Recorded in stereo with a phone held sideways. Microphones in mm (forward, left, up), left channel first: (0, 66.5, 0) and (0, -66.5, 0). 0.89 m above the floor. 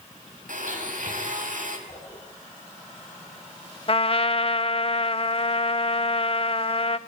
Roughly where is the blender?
Right.